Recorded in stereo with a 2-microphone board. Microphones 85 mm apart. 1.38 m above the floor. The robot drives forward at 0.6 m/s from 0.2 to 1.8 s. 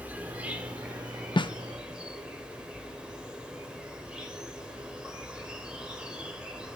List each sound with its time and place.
0.0 s an insect: 20° right (ahead or behind), 1.2 m; by 6.8 s 10° right (ahead or behind), 1.9 m
1.4 s a snare drum: 70° left (ahead or behind), 0.5 m